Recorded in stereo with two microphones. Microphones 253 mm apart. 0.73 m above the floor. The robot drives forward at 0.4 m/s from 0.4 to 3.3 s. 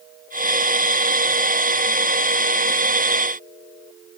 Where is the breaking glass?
I don't hear breaking glass.